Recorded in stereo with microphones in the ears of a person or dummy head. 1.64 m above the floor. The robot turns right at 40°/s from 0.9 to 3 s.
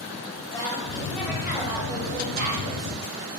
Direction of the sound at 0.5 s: 165° left.